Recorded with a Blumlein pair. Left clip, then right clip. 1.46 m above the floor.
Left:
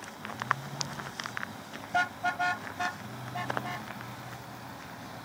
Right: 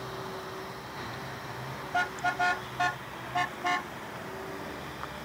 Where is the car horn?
5° left; by 3.9 s 30° right.